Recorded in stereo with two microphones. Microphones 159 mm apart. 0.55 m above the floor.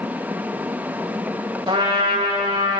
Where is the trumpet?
35° right (ahead or behind), 2.5 m.